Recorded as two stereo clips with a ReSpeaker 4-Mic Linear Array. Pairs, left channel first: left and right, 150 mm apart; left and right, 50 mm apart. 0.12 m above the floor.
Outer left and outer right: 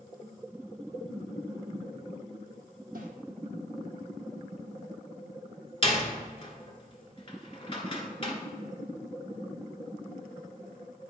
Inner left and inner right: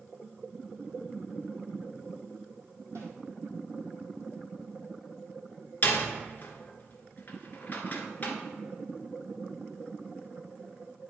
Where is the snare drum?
75° right (ahead or behind), 2 m.